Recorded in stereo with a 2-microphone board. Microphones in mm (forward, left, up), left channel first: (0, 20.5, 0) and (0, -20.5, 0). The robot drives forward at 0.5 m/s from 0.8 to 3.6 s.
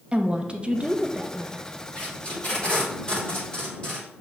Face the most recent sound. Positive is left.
turn(degrees=25)  # may be behind; listen again after turning